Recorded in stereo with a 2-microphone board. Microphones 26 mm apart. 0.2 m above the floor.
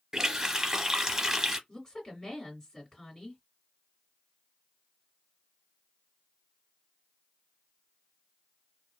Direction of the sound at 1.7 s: 30° left (ahead or behind).